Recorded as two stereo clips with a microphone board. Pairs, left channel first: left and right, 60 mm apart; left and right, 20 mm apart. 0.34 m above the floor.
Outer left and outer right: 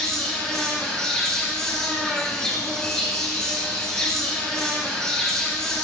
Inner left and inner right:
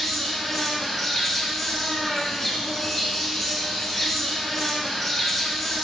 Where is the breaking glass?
No breaking glass in this recording.